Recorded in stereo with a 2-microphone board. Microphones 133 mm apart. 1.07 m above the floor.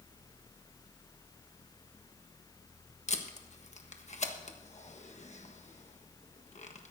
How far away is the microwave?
I don't hear a microwave.